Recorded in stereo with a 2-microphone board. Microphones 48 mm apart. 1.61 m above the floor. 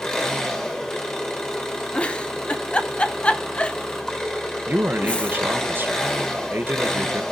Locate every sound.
0.0 s an engine running: 15° left (ahead or behind), 1.8 m
1.9 s a giggle: 25° left (ahead or behind), 0.7 m
4.7 s a man speaking: 50° right (ahead or behind), 0.9 m